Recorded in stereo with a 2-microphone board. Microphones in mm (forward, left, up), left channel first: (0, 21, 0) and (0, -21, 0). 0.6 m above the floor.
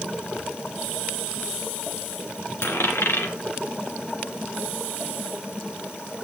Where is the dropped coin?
80° left, 2.5 m.